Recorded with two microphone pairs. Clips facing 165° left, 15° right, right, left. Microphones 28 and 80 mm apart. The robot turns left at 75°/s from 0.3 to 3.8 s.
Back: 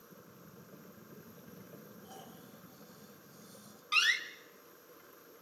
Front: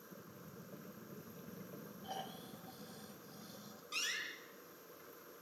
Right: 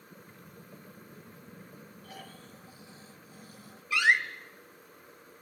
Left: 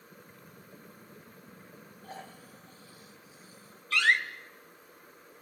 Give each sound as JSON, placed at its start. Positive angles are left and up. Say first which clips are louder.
{"t": 2.0, "sound": "snoring", "louder": "front 9 dB, left 4 dB", "azimuth_deg": 40, "distance_m": 2.0}
{"t": 3.9, "sound": "a door slam", "louder": "back 12 dB, right 1 dB", "azimuth_deg": -165, "distance_m": 2.0}